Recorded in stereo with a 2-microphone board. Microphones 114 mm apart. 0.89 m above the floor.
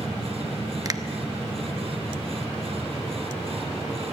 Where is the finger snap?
30° right (ahead or behind), 0.9 m.